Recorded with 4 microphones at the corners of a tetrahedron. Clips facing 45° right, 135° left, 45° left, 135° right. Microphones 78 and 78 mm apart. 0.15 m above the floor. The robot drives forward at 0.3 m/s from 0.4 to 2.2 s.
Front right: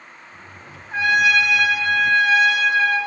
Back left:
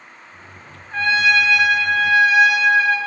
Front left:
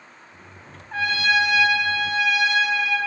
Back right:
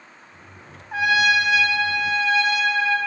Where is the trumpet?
80° right, 0.6 m; by 3.0 s 150° right, 0.7 m.